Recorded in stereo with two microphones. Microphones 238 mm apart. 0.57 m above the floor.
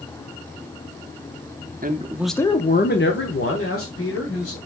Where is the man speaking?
40° right (ahead or behind), 0.8 m; by 4.6 s 70° left (ahead or behind), 2.5 m.